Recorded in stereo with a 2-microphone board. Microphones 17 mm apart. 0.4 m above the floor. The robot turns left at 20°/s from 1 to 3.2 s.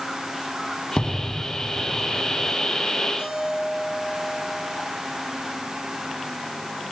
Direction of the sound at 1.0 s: 55° left.